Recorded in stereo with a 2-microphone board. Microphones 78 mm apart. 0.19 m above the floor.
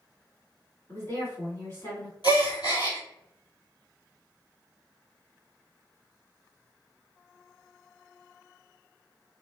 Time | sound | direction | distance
0.9 | a woman speaking | 40° left (ahead or behind) | 1.7 m
2.2 | a gasp | 65° left (ahead or behind) | 1.4 m